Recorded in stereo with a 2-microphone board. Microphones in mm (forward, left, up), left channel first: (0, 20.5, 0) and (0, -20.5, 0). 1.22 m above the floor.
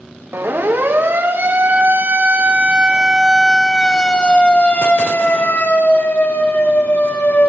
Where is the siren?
70° right (ahead or behind), 3 m; by 7.5 s 60° left (ahead or behind), 4 m.